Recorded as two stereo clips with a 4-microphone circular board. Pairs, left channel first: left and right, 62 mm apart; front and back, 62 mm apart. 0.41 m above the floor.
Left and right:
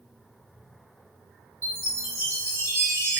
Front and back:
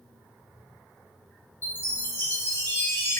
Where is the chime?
50° right, 0.9 m.